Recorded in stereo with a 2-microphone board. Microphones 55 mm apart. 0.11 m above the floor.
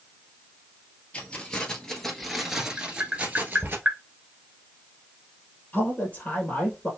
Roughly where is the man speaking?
Left.